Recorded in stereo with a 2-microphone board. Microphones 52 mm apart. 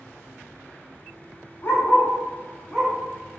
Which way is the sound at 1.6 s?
45° left (ahead or behind).